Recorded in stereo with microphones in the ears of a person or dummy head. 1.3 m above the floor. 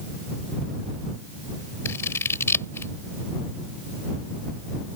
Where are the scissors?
10° left (ahead or behind).